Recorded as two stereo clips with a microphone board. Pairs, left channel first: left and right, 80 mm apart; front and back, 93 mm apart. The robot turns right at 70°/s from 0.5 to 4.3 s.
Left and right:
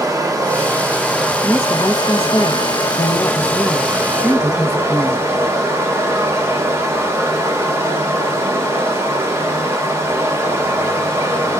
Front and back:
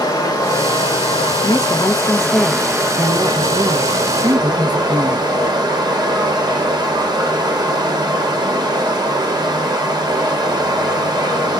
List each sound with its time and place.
0.0 s running water: 50° right, 1.2 m; by 11.6 s 140° right, 1.2 m
1.4 s a woman speaking: 10° right, 0.6 m; by 5.3 s 170° right, 0.6 m